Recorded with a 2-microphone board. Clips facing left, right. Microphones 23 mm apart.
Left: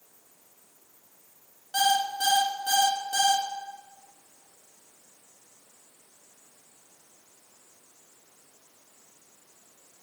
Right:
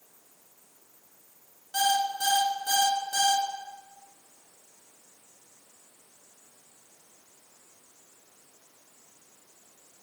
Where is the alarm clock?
20° left (ahead or behind), 0.7 m.